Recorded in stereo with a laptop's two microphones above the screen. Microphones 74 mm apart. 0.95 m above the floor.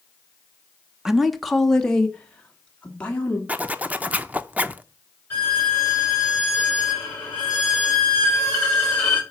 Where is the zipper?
20° right (ahead or behind), 0.6 m.